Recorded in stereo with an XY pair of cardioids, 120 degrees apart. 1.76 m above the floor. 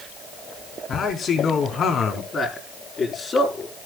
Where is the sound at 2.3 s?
30° left, 5 m.